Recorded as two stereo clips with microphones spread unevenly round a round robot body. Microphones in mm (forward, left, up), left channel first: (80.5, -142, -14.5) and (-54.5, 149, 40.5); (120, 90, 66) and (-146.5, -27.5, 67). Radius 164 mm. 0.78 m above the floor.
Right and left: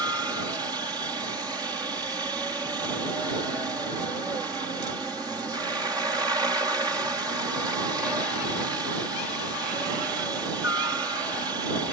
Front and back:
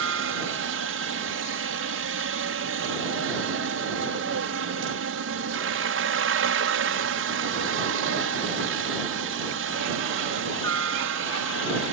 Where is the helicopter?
160° right.